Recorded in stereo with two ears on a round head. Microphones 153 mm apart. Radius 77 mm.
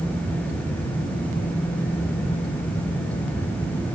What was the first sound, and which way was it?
Only background noise.